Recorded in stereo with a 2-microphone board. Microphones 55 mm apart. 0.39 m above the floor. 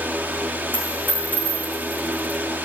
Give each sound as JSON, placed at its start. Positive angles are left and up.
{"t": 0.7, "sound": "a dropped coin", "side_deg": 30, "distance_m": 3.5}